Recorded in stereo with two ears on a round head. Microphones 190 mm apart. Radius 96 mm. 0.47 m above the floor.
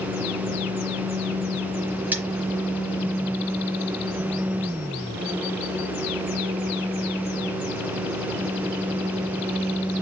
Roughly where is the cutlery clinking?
Centre.